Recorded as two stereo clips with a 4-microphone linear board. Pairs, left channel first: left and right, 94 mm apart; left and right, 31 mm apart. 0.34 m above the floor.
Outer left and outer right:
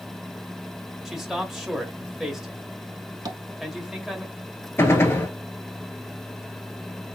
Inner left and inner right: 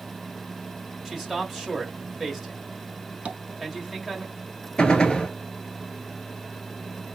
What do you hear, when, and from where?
1.1 s a man speaking: 5° right (ahead or behind), 1.2 m
3.2 s tapping: 40° right (ahead or behind), 0.7 m
4.8 s a gunshot: 25° left (ahead or behind), 0.9 m